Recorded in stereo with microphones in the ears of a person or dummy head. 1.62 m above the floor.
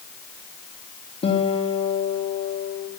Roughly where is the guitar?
Left.